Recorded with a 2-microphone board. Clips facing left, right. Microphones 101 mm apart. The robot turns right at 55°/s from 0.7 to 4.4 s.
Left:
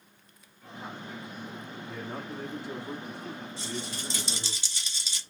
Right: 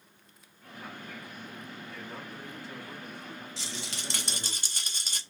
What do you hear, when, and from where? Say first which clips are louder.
1.9 s a man speaking: left 8 dB; 40° left, 1.3 m; by 4.6 s straight behind, 1.3 m
3.6 s a rattle: left 5 dB; 95° right, 0.9 m; by 5.2 s 50° right, 0.9 m